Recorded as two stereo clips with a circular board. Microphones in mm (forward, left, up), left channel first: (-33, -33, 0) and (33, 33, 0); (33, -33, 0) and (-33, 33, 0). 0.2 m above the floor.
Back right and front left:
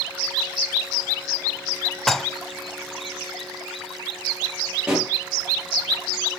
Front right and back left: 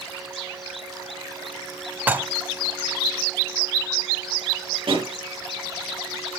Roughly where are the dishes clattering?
Behind left.